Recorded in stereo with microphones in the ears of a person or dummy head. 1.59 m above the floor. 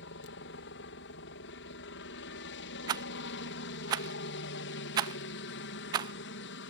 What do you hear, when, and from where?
0.0 s a helicopter: 60° left (ahead or behind)
2.9 s a rattle: 20° right (ahead or behind)